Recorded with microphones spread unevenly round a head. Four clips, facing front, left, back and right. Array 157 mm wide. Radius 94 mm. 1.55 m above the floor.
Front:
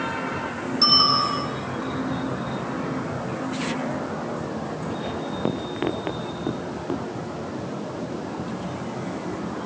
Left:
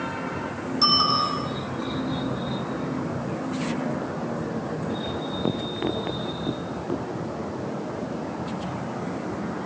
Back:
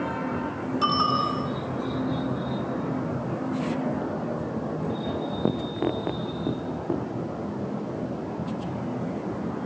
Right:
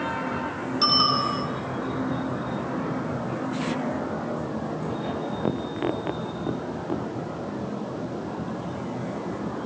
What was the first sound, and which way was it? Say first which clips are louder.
A bicycle bell: left 1 dB, front 1 dB; 165° left.